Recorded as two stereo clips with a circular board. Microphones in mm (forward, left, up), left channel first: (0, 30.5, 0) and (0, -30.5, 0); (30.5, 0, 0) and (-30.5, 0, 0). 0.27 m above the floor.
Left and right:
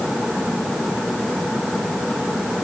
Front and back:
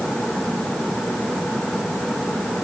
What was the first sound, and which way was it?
Only background noise.